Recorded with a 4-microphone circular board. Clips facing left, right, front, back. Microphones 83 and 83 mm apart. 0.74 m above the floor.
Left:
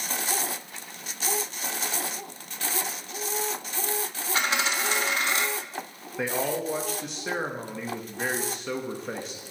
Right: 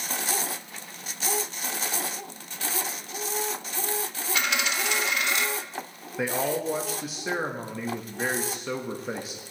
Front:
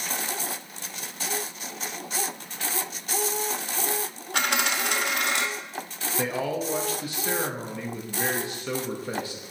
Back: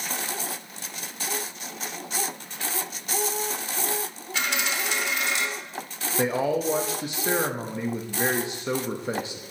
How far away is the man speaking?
About 0.6 m.